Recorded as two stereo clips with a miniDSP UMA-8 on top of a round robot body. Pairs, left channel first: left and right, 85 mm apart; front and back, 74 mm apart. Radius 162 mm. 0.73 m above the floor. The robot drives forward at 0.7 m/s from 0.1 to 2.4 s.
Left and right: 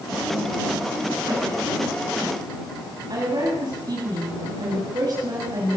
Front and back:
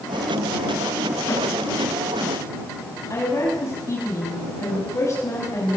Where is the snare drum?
50° right, 9.5 m.